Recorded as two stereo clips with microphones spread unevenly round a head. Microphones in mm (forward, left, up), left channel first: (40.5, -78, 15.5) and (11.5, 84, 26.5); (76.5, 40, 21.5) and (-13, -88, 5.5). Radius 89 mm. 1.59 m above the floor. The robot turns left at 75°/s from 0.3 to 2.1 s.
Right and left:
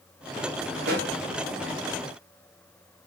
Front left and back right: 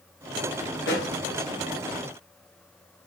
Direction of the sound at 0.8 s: 85° left.